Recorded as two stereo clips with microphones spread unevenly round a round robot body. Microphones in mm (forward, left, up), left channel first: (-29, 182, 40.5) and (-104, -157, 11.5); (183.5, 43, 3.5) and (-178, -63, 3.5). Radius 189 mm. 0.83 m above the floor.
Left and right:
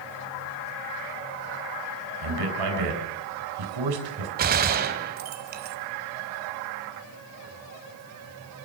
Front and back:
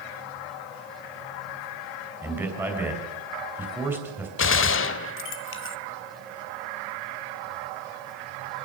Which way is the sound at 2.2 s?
80° right.